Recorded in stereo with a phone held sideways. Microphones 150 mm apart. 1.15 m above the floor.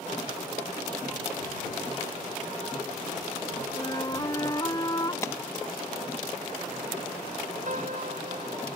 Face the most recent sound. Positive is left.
turn(degrees=-55)  # may be behind; listen again after turning